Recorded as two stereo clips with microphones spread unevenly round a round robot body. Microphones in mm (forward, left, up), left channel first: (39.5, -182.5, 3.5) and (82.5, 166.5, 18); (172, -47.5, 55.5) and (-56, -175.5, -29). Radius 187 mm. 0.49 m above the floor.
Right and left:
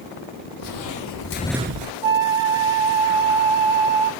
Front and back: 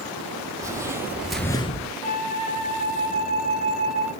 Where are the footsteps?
65° right, 1.6 m; by 1.9 s 80° left, 0.7 m.